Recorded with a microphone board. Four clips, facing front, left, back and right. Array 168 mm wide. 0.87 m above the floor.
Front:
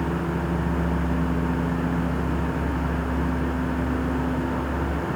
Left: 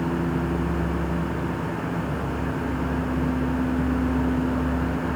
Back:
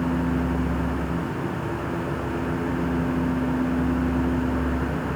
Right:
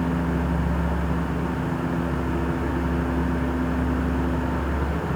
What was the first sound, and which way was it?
Only background noise.